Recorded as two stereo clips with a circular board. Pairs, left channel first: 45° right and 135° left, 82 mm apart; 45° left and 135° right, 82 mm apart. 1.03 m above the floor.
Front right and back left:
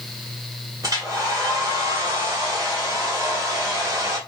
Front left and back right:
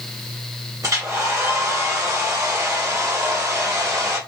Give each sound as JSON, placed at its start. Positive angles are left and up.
{"t": 0.8, "sound": "a hair dryer", "azimuth_deg": 180, "distance_m": 1.1}